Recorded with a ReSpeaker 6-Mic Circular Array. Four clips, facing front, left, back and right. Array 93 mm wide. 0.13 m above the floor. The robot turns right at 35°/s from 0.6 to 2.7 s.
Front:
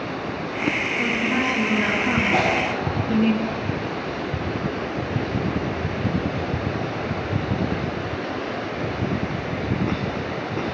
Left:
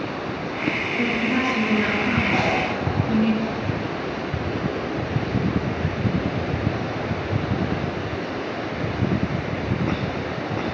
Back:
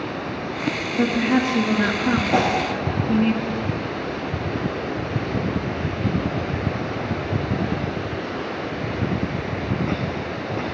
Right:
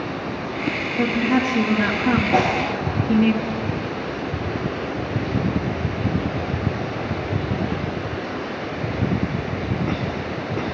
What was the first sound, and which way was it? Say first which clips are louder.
A woman speaking: right 5 dB, back 4 dB; 170° right.